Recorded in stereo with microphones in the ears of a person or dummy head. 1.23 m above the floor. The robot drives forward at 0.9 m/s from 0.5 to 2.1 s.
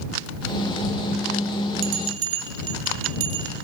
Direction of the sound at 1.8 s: 75° right (ahead or behind).